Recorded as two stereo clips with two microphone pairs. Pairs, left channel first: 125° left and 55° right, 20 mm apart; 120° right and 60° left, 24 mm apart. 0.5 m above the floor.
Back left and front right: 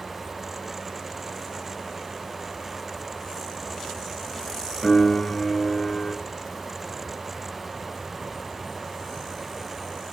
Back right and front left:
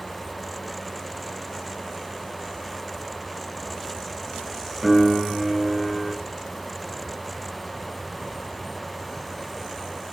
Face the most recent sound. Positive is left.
turn(degrees=140)